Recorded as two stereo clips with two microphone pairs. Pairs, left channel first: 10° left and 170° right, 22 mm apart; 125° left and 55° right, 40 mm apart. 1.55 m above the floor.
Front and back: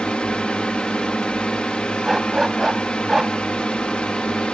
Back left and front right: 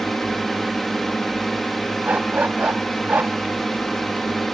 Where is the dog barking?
95° right.